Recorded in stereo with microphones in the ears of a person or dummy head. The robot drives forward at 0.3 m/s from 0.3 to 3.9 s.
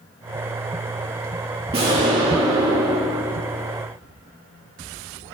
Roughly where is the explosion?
Right.